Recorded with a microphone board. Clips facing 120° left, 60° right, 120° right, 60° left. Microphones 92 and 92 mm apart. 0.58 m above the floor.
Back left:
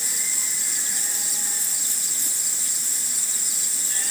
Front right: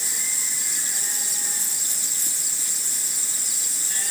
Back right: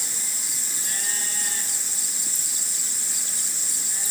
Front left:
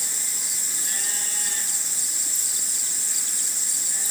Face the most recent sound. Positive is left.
No sound to turn to.